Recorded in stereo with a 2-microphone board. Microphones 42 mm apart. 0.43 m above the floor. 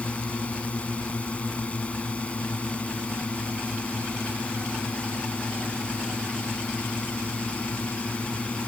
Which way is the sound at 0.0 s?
30° left (ahead or behind).